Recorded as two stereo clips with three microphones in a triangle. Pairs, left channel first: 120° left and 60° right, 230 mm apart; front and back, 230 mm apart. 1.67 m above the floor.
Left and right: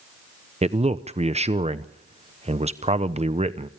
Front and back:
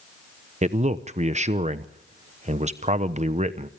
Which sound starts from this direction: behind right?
A man speaking, at 0.6 s.